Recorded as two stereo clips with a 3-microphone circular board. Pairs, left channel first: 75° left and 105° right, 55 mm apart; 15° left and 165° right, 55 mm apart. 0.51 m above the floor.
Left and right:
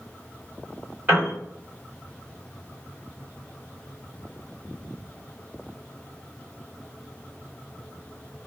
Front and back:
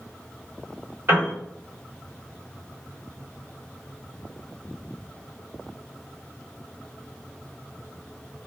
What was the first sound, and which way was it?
A piano, 155° right.